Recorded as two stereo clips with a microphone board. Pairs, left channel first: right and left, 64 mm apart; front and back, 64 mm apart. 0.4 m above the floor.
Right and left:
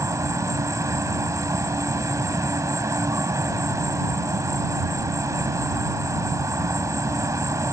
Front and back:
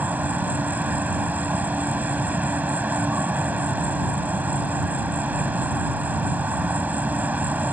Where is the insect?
115° left.